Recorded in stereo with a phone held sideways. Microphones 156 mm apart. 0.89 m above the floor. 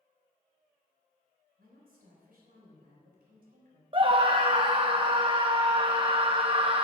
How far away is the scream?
About 0.6 m.